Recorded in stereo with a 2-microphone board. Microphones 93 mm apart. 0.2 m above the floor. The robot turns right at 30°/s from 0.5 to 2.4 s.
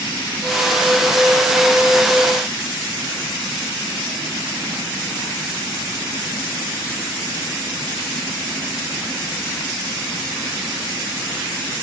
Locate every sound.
Only background noise.